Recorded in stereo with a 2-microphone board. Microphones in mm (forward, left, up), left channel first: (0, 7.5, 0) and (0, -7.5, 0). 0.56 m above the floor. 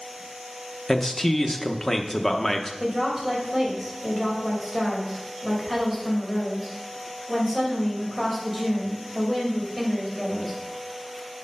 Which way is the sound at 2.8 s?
10° right (ahead or behind).